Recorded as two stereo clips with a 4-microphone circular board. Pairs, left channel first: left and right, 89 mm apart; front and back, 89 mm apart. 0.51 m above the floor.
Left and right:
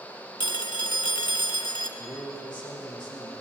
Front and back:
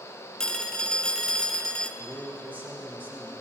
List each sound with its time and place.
0.4 s a phone ringing: 80° left, 0.8 m
2.0 s a man speaking: 110° left, 3 m